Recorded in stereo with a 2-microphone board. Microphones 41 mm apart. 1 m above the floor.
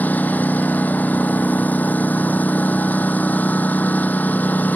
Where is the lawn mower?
45° left (ahead or behind).